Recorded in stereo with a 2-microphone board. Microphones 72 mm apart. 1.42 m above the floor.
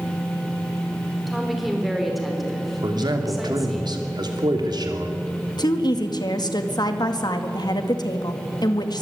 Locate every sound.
1.3 s a woman speaking: centre (ahead or behind), 4.5 m
2.8 s a man speaking: 75° right (ahead or behind), 3 m
5.6 s a woman speaking: 70° left (ahead or behind), 1.9 m